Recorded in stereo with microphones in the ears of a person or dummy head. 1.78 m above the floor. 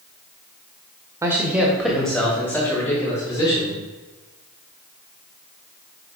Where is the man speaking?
15° right (ahead or behind), 1.6 m; by 3.8 s 15° left (ahead or behind), 4.5 m.